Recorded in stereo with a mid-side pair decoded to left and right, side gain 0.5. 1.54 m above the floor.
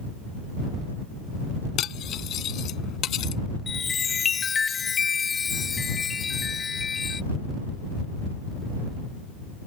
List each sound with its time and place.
1.8 s cutlery clinking: 65° left
3.7 s a chime: 35° left